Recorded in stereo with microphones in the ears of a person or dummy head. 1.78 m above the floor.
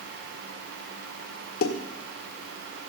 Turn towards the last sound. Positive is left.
turn(degrees=50)  # may be behind; listen again after turning